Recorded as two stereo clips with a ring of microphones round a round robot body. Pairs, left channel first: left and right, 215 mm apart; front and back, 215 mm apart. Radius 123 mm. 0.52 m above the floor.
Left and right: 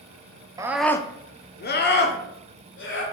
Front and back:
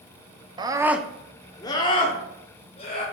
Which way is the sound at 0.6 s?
140° right.